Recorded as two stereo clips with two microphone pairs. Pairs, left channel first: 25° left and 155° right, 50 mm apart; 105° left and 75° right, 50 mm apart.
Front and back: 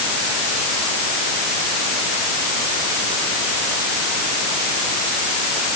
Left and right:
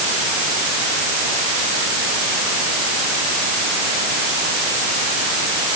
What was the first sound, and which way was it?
Only background noise.